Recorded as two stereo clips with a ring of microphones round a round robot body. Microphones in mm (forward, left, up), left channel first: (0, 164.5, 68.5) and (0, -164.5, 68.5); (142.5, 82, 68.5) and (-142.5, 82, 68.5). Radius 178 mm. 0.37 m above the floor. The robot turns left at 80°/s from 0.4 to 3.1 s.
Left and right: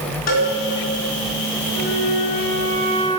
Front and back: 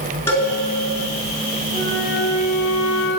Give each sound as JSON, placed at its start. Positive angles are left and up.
{"t": 0.3, "sound": "a cowbell", "azimuth_deg": 80, "distance_m": 4.0}
{"t": 1.7, "sound": "a flute", "azimuth_deg": 120, "distance_m": 2.0}